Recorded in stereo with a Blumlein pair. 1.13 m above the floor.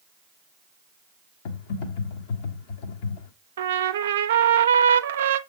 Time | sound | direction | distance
1.4 | typing on a keyboard | 50° left | 1.3 m
3.6 | a trumpet | 60° right | 0.6 m